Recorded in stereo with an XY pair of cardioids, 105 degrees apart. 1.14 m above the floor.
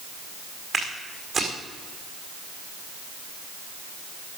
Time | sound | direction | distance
0.7 | footsteps | 35° right | 5.5 m